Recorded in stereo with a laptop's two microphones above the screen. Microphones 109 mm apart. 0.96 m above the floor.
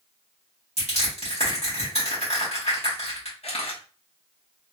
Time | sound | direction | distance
0.8 | crushing | 70° left (ahead or behind) | 2 m
3.4 | a camera shutter | 65° left (ahead or behind) | 1.1 m